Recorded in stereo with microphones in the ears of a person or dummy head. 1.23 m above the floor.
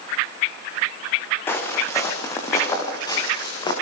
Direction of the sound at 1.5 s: 15° left (ahead or behind).